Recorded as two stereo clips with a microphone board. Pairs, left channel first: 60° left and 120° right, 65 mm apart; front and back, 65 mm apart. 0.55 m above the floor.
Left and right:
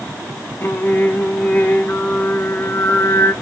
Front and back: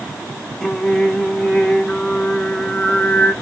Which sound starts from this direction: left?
Singing, at 0.6 s.